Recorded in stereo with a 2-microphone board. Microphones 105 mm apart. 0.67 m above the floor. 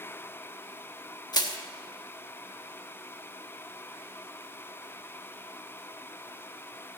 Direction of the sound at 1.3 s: 40° left (ahead or behind).